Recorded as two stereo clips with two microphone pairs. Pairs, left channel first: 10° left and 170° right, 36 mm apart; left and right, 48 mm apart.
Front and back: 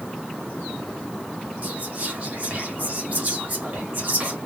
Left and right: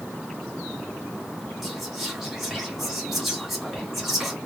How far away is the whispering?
About 1.7 m.